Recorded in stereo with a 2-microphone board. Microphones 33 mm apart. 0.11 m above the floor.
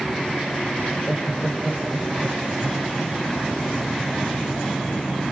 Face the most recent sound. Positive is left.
turn(degrees=15)  # may be behind; listen again after turning